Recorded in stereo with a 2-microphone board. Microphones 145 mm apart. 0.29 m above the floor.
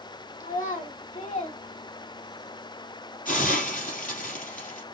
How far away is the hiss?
About 2.5 m.